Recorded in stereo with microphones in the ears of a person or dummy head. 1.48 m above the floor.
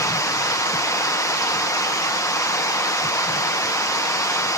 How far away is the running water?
About 0.8 m.